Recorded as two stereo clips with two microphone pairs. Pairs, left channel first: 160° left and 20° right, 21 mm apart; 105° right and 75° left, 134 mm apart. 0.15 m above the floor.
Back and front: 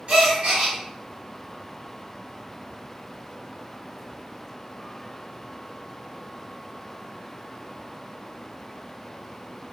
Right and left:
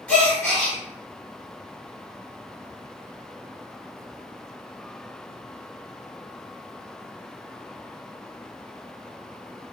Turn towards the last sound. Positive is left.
turn(degrees=-25)